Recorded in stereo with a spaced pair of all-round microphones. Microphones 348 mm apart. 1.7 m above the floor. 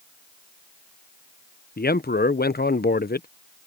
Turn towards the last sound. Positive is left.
turn(degrees=25)  # may be behind; listen again after turning